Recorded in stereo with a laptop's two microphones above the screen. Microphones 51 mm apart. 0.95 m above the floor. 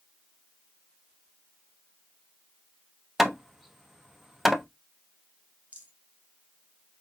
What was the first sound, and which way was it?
Hammering, 5° right (ahead or behind).